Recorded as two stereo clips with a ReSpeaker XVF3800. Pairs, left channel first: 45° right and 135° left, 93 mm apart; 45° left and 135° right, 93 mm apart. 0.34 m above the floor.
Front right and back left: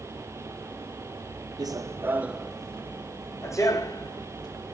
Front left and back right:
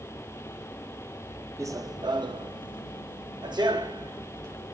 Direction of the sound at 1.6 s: 175° left.